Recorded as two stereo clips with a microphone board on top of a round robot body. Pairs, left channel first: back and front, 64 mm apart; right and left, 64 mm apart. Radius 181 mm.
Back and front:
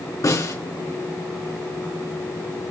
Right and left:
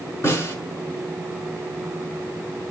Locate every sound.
0.2 s a snare drum: 140° right, 4 m